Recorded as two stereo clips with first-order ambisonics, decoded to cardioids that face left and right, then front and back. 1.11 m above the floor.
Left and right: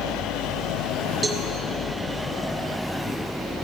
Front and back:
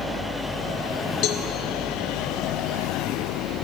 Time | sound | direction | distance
1.2 | a cowbell | 15° right | 1.3 m